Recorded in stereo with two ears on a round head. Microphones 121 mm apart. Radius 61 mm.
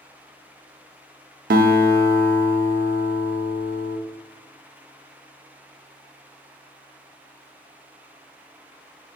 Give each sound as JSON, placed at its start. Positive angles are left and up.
{"t": 1.5, "sound": "a guitar", "side_deg": -75, "distance_m": 0.5}